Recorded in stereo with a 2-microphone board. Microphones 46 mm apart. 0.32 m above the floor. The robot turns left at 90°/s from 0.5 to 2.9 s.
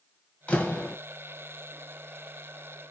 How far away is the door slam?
About 1.4 m.